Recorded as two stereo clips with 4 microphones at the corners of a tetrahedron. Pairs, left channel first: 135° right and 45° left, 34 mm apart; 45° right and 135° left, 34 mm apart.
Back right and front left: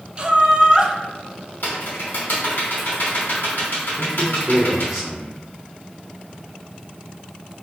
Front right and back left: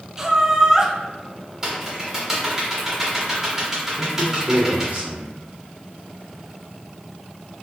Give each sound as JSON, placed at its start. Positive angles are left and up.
{"t": 0.2, "sound": "laughter", "azimuth_deg": 80, "distance_m": 0.6}
{"t": 1.6, "sound": "typing on a keyboard", "azimuth_deg": -150, "distance_m": 1.2}
{"t": 4.0, "sound": "a man speaking", "azimuth_deg": 120, "distance_m": 1.2}